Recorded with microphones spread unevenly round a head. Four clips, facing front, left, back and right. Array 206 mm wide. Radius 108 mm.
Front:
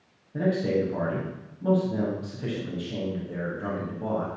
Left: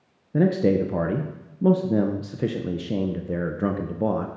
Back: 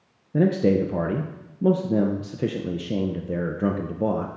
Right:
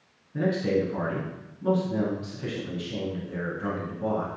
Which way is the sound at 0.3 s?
140° left.